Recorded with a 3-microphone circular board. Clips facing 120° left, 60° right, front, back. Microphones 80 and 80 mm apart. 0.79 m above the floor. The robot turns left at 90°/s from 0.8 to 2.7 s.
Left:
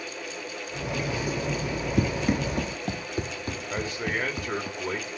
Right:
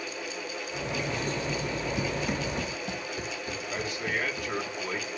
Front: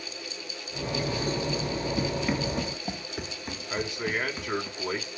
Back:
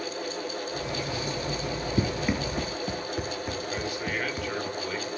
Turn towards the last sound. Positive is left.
turn(degrees=65)